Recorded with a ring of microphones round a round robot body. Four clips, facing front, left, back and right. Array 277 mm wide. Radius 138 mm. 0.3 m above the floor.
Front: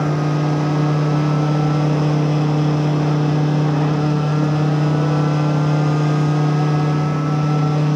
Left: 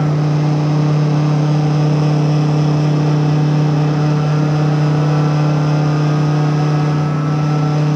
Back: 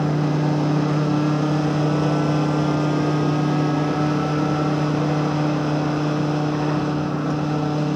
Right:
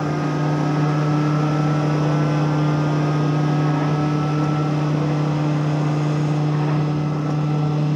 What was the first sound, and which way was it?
Only background noise.